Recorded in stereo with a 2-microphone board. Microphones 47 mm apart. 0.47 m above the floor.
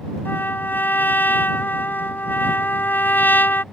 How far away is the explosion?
No explosion in this recording.